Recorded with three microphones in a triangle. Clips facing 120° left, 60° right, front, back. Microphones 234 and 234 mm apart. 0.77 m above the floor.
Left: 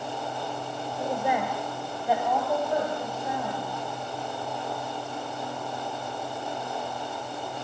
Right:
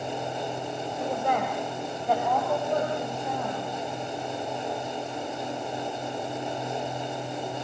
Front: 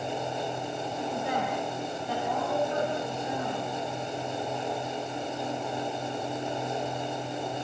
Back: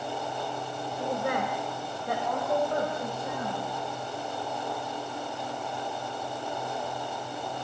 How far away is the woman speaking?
About 4 m.